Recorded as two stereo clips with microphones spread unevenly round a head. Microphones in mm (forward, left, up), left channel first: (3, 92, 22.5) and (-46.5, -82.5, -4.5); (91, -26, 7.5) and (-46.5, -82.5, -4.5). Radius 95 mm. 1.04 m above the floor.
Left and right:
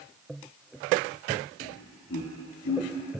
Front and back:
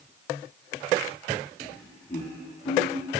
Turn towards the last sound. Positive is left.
turn(degrees=55)